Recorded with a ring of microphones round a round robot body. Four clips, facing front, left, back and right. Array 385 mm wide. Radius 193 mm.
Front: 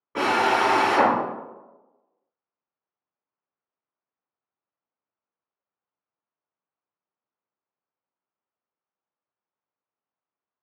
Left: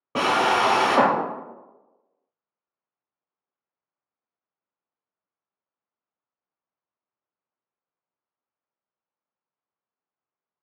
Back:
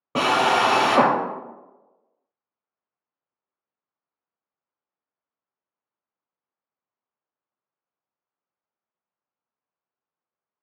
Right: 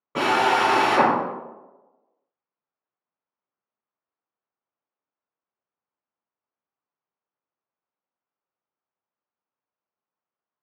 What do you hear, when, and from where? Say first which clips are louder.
0.1 s a drill: right 1 dB, back 2 dB; 150° left, 0.7 m